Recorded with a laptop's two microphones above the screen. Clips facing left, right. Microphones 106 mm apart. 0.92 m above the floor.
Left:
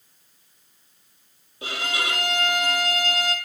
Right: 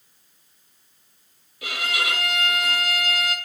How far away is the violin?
About 6.5 m.